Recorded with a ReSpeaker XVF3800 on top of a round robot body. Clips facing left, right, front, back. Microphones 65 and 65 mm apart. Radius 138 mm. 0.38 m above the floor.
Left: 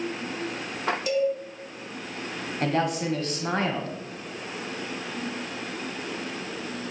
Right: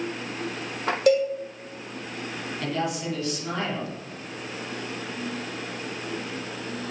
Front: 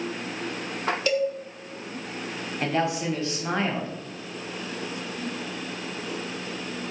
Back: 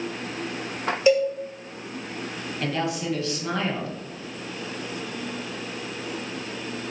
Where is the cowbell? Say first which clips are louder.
Right 5 dB, back 7 dB; 110° right, 1.4 m.